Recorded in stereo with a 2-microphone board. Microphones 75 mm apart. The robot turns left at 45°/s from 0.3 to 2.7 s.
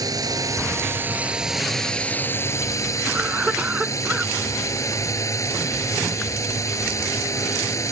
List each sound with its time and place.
0.0 s a drone: 120° right; by 7.9 s 135° left
3.1 s a cough: 15° right (ahead or behind)